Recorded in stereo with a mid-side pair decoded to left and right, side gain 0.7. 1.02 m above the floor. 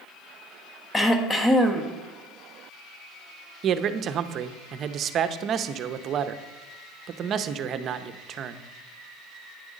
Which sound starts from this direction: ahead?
Throat clearing, at 0.9 s.